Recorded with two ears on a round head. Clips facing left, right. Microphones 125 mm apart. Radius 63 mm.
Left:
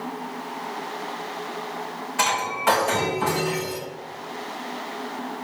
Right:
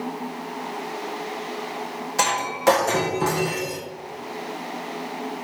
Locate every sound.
2.2 s breaking glass: 45° right (ahead or behind), 4 m